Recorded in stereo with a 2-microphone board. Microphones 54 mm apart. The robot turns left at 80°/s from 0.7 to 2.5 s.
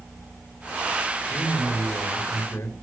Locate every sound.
1.3 s a man speaking: 145° left, 3.5 m; by 2.7 s 50° left, 3.5 m